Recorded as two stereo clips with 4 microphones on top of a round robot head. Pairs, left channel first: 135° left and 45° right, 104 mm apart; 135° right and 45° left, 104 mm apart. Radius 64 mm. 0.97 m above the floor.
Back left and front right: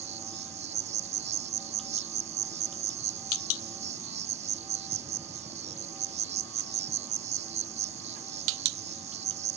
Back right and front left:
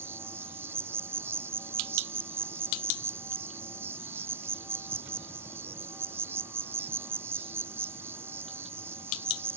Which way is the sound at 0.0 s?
25° right.